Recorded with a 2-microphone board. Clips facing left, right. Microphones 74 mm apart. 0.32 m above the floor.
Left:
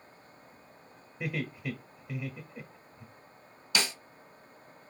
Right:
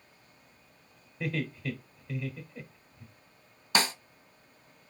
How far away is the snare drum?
About 0.8 m.